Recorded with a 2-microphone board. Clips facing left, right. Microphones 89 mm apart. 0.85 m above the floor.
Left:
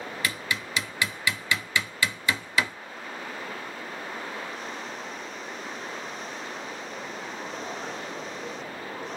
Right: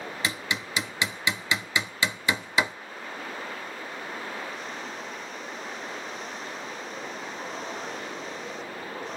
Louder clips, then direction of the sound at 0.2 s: Even; 25° right (ahead or behind).